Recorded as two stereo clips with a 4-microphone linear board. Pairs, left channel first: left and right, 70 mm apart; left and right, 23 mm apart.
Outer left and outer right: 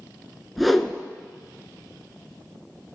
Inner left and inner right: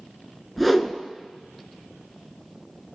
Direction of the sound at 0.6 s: Centre (ahead or behind).